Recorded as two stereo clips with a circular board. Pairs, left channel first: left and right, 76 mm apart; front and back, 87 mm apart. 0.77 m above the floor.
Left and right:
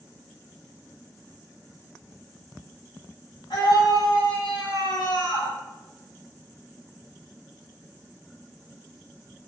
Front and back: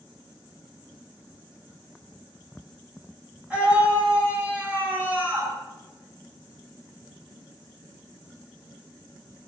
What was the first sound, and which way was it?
A scream, 105° left.